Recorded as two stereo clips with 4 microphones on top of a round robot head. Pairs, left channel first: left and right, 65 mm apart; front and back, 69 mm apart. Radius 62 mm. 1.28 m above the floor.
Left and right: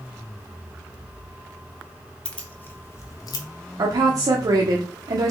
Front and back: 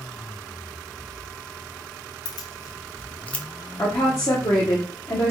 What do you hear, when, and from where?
2.2 s keys jangling: 15° left, 0.8 m; by 3.5 s 80° left, 0.7 m
3.8 s a woman speaking: 60° right, 0.7 m